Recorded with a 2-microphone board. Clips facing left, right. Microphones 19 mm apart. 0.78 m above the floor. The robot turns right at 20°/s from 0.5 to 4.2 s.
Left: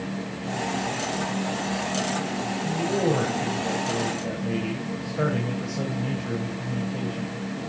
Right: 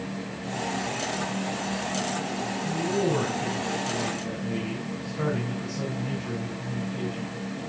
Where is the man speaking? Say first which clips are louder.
Left 2 dB; 80° left, 4.5 m; by 7.4 s 115° left, 4.5 m.